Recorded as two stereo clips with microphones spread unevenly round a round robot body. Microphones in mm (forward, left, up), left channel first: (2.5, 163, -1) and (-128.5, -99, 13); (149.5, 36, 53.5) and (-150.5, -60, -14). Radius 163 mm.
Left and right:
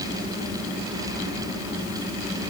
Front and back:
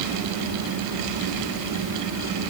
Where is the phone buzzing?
No phone buzzing in this recording.